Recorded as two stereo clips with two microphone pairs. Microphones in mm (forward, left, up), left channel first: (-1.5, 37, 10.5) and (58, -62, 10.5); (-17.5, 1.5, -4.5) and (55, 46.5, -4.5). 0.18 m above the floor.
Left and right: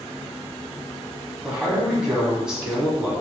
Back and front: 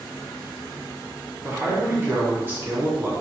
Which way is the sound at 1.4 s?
10° left.